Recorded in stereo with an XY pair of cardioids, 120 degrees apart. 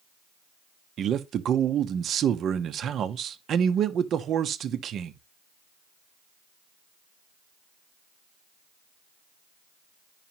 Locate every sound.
1.0 s a man speaking: 55° right, 0.8 m